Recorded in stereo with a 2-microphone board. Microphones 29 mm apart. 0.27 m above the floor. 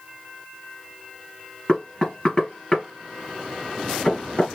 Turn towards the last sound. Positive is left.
turn(degrees=25)  # may be behind; listen again after turning